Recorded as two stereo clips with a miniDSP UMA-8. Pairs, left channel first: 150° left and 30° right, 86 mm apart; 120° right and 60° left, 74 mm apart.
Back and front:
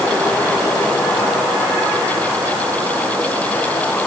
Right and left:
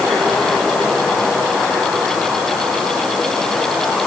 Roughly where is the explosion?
I don't hear an explosion.